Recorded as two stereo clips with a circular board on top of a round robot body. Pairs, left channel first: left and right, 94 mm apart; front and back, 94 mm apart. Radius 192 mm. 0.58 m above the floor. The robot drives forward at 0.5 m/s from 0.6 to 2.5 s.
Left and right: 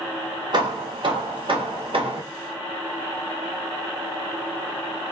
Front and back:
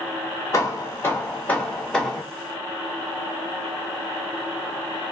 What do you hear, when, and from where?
0.5 s hammering: 55° right, 1.5 m; by 2.2 s 90° right, 1.3 m